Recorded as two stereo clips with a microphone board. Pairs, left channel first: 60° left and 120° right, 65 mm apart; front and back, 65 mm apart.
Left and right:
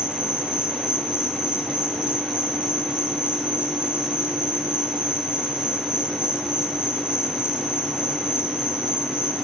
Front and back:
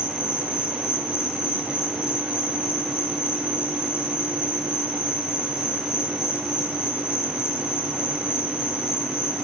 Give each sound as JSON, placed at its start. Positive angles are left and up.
{"t": 0.0, "sound": "an insect", "azimuth_deg": -45, "distance_m": 4.0}